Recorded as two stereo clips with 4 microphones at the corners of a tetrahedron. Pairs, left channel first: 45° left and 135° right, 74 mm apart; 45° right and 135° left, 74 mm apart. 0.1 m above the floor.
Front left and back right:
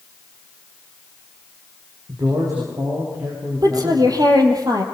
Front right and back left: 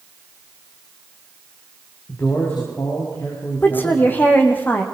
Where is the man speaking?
105° right, 8 m; by 4.2 s 95° right, 8.5 m.